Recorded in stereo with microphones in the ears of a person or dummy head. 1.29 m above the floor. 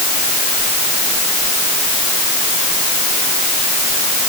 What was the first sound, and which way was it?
Only background noise.